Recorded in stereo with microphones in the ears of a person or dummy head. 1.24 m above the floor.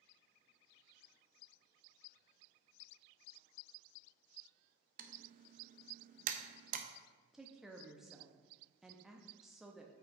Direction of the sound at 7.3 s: Centre (ahead or behind).